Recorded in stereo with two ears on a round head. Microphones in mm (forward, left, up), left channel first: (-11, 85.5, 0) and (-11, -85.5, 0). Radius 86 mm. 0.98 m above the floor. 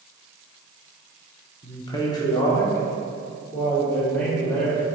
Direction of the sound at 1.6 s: 20° left (ahead or behind).